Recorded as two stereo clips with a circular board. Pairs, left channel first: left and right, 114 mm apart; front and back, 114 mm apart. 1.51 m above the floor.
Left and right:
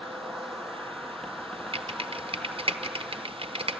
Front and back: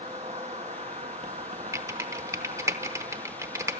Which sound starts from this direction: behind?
An insect, at 0.0 s.